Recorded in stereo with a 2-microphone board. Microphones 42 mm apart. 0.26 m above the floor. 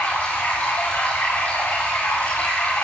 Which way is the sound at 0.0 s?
55° left (ahead or behind).